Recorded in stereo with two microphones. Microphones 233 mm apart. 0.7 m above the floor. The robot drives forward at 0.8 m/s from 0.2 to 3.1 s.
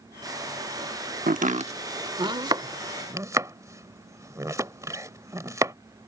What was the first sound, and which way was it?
Chopping, 40° right (ahead or behind).